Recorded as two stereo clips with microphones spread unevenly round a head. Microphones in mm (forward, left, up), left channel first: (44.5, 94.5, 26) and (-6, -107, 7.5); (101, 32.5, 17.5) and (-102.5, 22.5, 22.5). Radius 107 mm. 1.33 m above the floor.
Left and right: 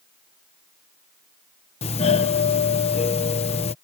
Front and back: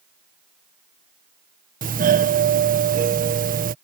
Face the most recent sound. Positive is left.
turn(degrees=140)